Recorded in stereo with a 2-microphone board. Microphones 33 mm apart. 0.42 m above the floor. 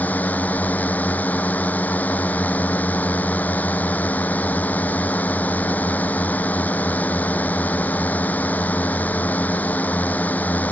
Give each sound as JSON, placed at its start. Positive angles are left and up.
{"t": 0.0, "sound": "a drone", "side_deg": 55}